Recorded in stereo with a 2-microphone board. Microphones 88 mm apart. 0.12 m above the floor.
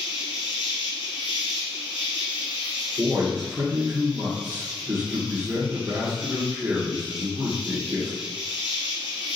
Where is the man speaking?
30° right (ahead or behind), 1.9 m.